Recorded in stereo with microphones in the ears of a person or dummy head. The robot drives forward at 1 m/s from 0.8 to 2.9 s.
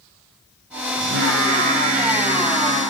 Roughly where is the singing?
Right.